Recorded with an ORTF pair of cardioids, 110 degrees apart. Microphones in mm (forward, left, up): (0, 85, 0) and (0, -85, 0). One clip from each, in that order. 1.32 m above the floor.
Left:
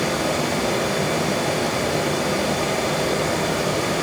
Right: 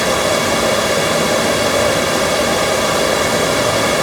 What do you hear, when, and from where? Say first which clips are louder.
0.0 s running water: right 7 dB; 70° right, 4.5 m